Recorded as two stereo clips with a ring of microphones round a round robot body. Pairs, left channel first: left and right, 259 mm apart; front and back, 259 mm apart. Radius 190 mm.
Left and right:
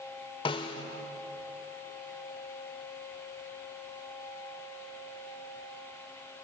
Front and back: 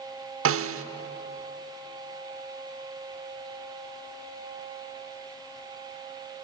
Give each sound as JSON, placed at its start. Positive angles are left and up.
{"t": 0.5, "sound": "a snare drum", "azimuth_deg": 160, "distance_m": 0.9}